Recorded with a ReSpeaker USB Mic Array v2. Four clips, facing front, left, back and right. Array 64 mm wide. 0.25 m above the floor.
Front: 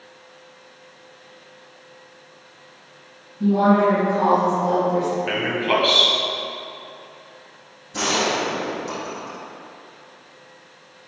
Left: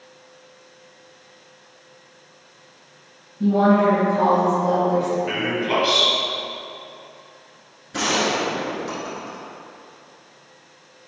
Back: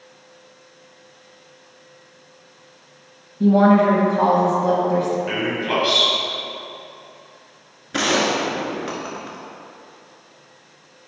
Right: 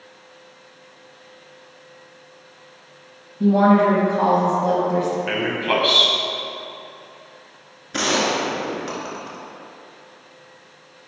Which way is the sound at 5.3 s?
60° right.